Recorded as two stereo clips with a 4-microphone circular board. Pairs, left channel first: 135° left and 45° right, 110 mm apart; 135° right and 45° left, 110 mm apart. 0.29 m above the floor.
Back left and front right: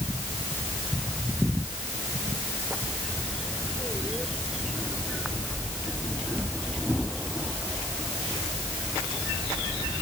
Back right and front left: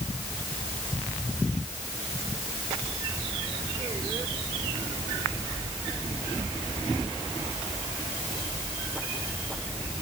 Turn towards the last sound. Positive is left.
No sound to turn to.